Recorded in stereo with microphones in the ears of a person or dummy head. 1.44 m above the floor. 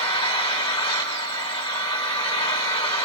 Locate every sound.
0.0 s an engine running: 25° left (ahead or behind), 6 m